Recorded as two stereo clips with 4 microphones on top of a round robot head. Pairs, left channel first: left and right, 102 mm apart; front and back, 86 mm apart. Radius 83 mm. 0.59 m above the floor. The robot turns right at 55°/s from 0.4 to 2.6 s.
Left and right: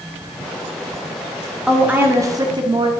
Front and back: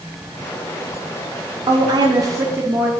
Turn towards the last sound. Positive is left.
turn(degrees=-120)